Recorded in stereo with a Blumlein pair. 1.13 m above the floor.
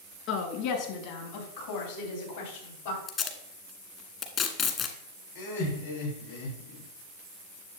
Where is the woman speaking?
40° left, 1.9 m; by 3.0 s 65° left, 4.5 m.